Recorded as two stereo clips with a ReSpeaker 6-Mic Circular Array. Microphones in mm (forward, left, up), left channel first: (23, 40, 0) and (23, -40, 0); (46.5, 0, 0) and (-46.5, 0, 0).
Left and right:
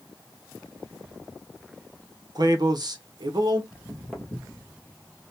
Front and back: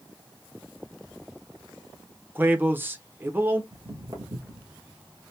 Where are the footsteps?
165° left, 1.7 m.